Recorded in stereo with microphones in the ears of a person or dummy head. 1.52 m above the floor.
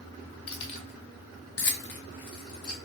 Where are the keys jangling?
25° left (ahead or behind), 1.1 m; by 2.8 s 45° left (ahead or behind), 1.3 m.